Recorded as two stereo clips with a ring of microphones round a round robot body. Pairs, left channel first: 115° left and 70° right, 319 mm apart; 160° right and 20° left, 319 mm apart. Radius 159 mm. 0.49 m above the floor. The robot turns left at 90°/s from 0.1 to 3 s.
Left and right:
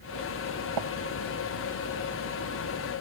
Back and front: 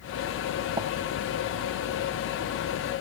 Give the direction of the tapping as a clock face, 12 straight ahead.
2 o'clock.